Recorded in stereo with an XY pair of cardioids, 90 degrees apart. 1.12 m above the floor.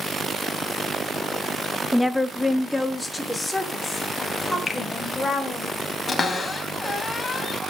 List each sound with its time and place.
1.9 s a woman speaking: 5° left, 0.9 m; by 5.7 s 20° left, 6.5 m
4.7 s a finger snap: 50° left, 2 m
6.1 s a cupboard door: 35° left, 2.5 m